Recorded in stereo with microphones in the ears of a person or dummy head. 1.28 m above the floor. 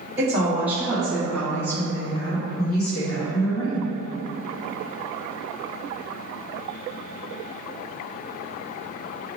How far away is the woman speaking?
About 1.6 m.